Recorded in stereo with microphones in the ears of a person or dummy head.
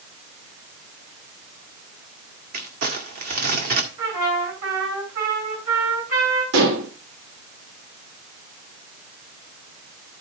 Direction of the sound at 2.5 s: 50° right (ahead or behind).